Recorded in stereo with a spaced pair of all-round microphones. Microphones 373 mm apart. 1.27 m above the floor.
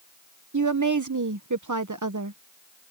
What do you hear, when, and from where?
0.5 s a woman speaking: 55° right (ahead or behind)